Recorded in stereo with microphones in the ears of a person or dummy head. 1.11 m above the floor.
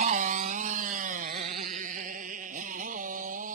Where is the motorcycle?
45° right (ahead or behind); by 3.6 s 50° right (ahead or behind).